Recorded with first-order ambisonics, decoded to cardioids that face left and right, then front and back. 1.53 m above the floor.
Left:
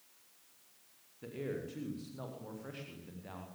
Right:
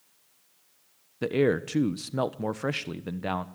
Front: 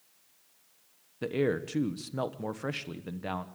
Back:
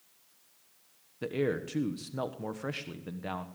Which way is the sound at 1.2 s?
80° right.